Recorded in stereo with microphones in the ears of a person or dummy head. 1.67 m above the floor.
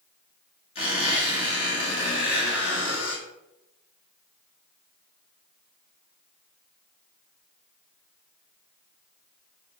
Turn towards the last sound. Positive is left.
turn(degrees=30)  # may be behind; listen again after turning